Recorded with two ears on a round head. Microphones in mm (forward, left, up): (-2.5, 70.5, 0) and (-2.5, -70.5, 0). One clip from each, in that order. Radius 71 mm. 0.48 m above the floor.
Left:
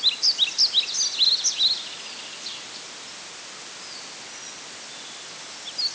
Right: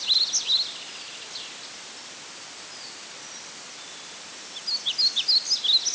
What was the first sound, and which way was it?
Only background noise.